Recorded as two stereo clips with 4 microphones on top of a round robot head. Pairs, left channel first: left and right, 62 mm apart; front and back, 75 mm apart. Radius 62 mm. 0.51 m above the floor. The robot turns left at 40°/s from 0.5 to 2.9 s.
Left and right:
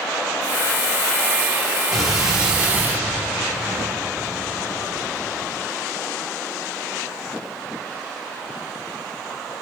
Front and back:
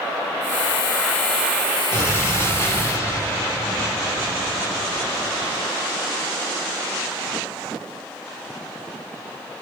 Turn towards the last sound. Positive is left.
turn(degrees=-40)